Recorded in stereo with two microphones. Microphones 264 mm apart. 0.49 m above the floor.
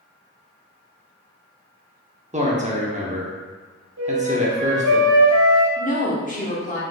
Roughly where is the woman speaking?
Left.